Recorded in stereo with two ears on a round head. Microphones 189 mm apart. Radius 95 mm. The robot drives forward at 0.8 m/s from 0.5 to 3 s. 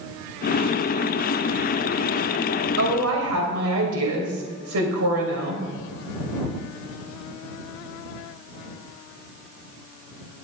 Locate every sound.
2.8 s a woman speaking: 80° right, 3 m; by 5.6 s 75° right (ahead or behind), 3 m